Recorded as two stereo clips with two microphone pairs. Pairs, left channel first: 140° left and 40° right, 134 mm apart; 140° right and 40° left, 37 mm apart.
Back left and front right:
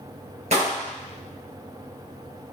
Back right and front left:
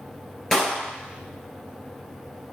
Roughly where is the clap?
Ahead right.